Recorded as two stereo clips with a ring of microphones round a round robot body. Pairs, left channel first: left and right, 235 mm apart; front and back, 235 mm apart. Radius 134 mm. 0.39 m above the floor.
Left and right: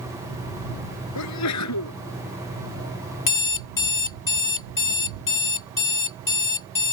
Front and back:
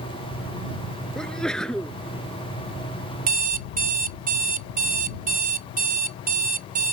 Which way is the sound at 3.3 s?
125° left.